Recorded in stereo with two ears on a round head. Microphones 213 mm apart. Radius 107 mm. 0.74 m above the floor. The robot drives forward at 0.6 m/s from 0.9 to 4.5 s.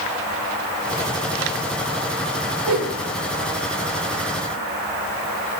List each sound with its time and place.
2.7 s a whoosh: 85° right, 1.3 m; by 3.0 s 90° right, 1.3 m